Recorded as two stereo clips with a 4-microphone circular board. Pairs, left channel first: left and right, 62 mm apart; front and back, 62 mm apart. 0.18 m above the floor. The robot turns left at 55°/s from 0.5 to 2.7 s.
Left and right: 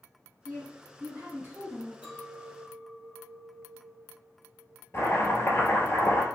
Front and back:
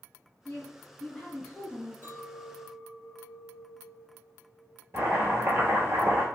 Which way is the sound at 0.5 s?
45° right.